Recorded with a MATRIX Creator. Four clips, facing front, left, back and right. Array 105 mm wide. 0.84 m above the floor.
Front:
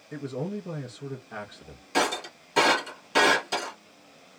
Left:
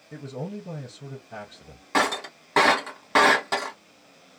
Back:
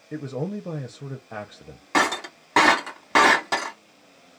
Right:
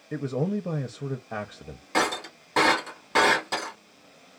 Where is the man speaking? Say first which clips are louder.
Right 7 dB, back 3 dB; 120° right, 0.6 m.